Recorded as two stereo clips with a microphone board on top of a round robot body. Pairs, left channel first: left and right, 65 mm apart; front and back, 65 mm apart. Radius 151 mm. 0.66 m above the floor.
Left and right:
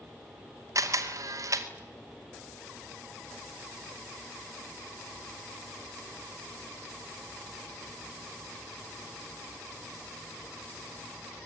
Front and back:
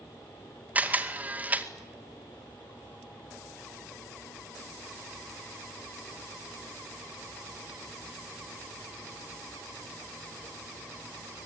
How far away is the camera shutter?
About 2.5 m.